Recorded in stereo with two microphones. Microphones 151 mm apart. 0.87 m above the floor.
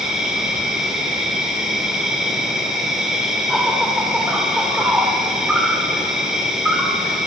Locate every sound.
0.0 s an insect: 5° right (ahead or behind), 1.7 m